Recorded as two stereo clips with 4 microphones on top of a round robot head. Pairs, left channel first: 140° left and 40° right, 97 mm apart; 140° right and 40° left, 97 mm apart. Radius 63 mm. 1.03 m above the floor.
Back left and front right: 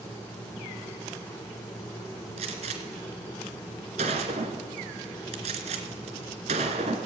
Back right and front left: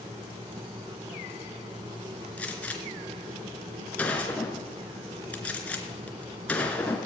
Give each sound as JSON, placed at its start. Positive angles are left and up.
{"t": 2.4, "sound": "a gunshot", "azimuth_deg": -65, "distance_m": 3.0}